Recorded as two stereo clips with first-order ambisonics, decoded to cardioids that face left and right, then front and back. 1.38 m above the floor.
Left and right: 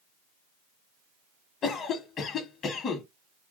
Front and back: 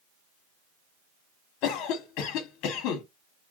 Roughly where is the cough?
Ahead left.